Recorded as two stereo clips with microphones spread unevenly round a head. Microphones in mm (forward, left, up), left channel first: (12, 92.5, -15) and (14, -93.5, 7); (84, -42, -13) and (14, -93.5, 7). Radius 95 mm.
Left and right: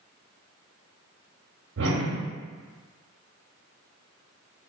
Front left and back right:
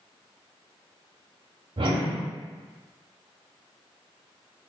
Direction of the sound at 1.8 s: 115° right.